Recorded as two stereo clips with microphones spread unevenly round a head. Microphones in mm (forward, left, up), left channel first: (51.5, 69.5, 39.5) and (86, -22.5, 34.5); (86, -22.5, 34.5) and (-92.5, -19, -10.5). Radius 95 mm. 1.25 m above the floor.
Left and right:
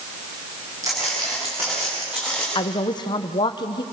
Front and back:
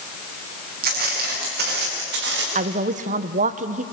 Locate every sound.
0.8 s footsteps: 140° right, 9 m; by 2.5 s 155° right, 8.5 m
2.5 s a woman speaking: 155° left, 0.9 m